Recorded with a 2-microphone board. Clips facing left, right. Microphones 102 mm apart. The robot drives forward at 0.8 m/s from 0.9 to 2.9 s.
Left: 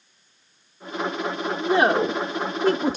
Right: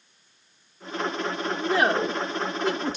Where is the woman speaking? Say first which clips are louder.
Left 4 dB; 20° left (ahead or behind), 1.4 m; by 3.0 s 45° left (ahead or behind), 0.7 m.